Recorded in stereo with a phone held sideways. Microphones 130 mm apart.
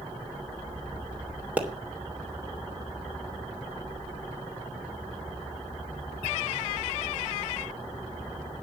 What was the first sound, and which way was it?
A pop, 10° right (ahead or behind).